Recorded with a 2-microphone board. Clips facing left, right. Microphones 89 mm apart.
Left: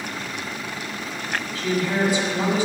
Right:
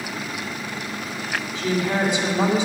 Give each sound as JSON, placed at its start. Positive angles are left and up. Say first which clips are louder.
{"t": 1.6, "sound": "a woman speaking", "louder": "even", "side_deg": -20, "distance_m": 1.4}